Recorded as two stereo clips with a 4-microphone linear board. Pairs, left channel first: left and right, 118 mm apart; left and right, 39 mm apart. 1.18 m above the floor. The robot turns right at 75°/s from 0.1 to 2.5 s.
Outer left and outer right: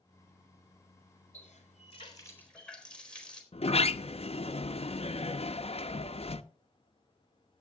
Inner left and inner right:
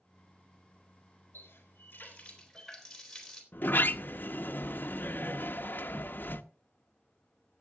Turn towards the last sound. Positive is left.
turn(degrees=55)  # may be behind; listen again after turning